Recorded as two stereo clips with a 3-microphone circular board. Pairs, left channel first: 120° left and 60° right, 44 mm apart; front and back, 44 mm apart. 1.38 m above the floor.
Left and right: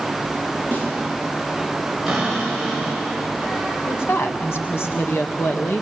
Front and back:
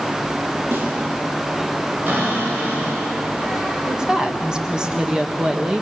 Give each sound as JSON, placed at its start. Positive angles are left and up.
{"t": 0.7, "sound": "a snare drum", "azimuth_deg": 165, "distance_m": 8.5}
{"t": 2.1, "sound": "a cupboard door", "azimuth_deg": -145, "distance_m": 7.0}
{"t": 3.9, "sound": "a woman speaking", "azimuth_deg": 105, "distance_m": 1.9}